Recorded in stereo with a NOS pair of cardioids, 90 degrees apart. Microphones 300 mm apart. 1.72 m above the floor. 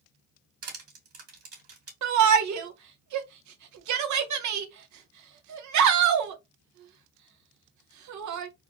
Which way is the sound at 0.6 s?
50° right.